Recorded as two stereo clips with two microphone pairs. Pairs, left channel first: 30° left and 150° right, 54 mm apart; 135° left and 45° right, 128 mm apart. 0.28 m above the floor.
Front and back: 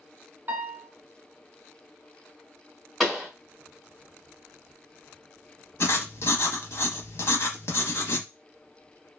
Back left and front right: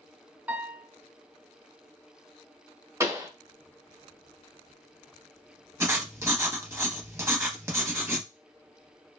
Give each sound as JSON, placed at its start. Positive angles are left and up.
{"t": 0.5, "sound": "a piano", "azimuth_deg": -115, "distance_m": 0.7}
{"t": 3.0, "sound": "a pop", "azimuth_deg": -45, "distance_m": 0.9}
{"t": 5.8, "sound": "writing", "azimuth_deg": 20, "distance_m": 0.7}